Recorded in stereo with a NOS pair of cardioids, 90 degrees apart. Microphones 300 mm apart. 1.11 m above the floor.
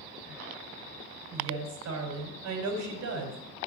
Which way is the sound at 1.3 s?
65° right.